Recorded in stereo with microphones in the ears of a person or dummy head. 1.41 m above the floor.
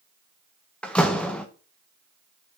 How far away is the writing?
No writing in this recording.